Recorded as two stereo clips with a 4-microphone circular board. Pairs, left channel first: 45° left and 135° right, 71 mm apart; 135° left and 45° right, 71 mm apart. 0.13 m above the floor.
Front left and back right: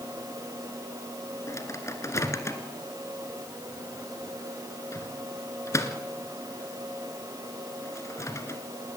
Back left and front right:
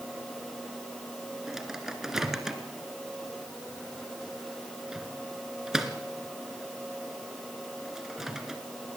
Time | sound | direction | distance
1.5 | a microwave | 35° left | 1.7 m